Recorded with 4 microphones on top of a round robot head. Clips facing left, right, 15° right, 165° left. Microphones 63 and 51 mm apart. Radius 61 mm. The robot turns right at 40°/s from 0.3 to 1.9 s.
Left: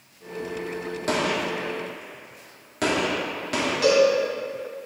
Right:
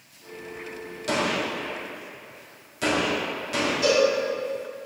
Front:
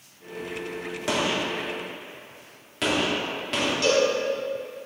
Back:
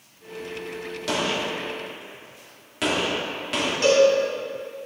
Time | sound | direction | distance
1.1 | a gunshot | 45° left | 2 m
3.8 | a cowbell | 115° left | 3 m